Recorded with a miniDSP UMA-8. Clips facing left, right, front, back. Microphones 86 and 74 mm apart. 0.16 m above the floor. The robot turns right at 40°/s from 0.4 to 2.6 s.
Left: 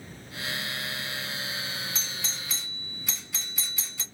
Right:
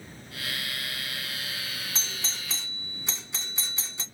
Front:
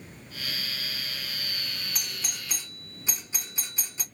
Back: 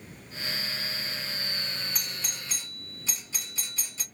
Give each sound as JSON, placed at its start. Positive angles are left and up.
{"t": 1.9, "sound": "a doorbell", "azimuth_deg": -85, "distance_m": 1.6}